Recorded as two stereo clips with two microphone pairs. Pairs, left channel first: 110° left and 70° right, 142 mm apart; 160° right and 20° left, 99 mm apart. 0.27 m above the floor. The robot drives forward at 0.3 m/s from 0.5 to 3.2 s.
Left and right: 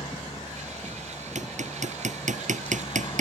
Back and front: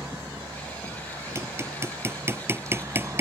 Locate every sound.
0.0 s a helicopter: 70° left
1.4 s hammering: 40° right; by 3.2 s 45° right